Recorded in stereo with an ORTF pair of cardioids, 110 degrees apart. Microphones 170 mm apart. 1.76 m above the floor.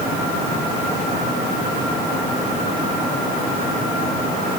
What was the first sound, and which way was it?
Only background noise.